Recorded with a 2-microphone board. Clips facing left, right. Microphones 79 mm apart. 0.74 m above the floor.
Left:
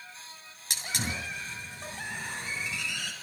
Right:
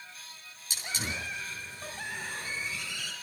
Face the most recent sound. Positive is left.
turn(degrees=75)  # may be behind; listen again after turning